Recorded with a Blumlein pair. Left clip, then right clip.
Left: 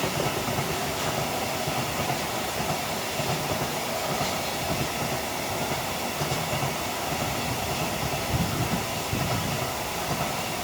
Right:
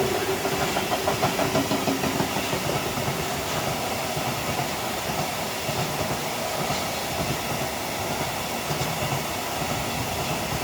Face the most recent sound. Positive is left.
No sound to turn to.